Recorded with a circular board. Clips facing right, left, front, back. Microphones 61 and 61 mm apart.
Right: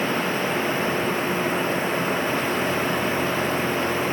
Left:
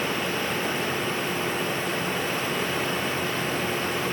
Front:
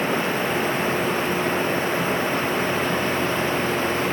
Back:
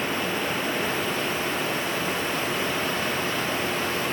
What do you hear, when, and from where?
Only background noise.